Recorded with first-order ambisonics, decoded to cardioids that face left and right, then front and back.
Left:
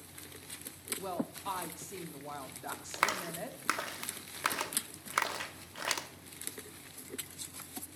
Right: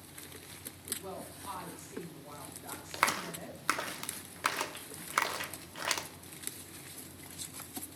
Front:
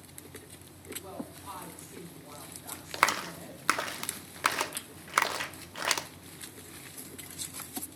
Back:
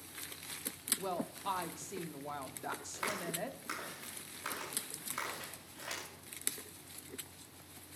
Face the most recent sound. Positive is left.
turn(degrees=0)